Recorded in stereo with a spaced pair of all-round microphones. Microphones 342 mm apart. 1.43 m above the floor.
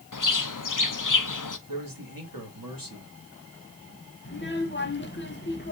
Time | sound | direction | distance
0.1 | a bird | 65° left (ahead or behind) | 0.5 m
1.7 | a man speaking | 85° right | 2 m
4.2 | a child speaking | 35° left (ahead or behind) | 0.8 m